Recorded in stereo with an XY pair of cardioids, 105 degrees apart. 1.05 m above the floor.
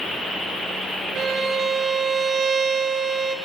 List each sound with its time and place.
1.1 s a violin: 70° right, 0.9 m